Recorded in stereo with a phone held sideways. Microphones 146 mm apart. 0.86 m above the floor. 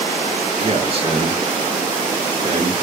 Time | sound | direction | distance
0.6 | a man speaking | 40° right (ahead or behind) | 1.2 m